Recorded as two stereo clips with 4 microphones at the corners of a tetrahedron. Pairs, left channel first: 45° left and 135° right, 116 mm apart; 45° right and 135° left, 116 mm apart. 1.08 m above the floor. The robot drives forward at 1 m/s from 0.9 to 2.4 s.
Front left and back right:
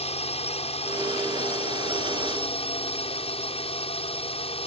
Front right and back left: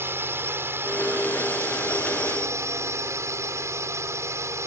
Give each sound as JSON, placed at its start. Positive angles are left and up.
{"t": 0.0, "sound": "a drone", "azimuth_deg": 65}